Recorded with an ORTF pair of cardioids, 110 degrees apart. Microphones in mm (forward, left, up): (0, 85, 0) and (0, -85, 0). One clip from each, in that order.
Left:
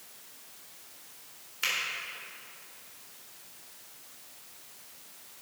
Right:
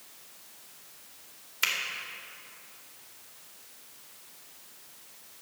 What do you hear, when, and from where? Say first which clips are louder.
1.6 s a finger snap: right 2 dB; 40° right, 2.5 m